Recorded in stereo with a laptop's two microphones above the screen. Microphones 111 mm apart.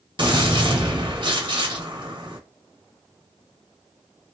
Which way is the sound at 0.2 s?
45° right (ahead or behind).